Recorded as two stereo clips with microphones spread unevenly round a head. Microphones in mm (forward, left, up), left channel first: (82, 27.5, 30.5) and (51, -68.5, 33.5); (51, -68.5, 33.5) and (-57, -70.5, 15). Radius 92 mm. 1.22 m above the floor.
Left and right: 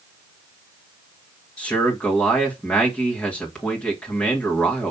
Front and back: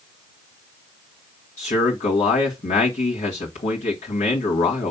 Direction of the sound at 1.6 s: 5° right.